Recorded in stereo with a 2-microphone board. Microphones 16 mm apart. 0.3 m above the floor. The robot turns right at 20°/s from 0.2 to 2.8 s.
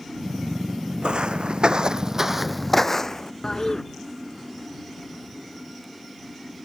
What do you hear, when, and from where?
1.0 s footsteps: 75° right (ahead or behind); by 3.3 s 40° left (ahead or behind)
3.4 s a toilet flushing: 40° left (ahead or behind)